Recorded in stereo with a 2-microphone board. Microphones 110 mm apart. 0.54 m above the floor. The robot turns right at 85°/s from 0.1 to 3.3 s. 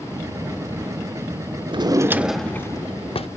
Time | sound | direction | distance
1.7 | a drawer | 60° right | 0.5 m